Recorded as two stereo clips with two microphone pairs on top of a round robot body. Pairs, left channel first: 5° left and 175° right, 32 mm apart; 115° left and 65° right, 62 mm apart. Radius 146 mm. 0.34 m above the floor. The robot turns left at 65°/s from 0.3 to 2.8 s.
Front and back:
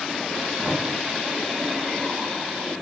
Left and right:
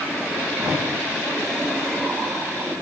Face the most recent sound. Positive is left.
turn(degrees=-170)